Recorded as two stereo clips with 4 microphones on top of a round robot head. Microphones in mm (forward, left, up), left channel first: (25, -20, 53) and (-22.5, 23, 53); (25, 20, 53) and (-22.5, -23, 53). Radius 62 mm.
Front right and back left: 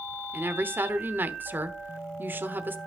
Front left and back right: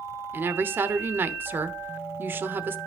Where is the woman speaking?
Straight behind, 1.1 m.